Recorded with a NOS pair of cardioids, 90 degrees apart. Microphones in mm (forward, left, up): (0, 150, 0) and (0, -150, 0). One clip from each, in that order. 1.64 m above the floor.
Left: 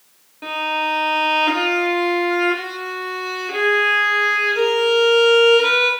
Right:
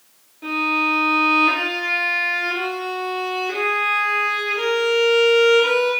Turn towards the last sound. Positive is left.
turn(degrees=35)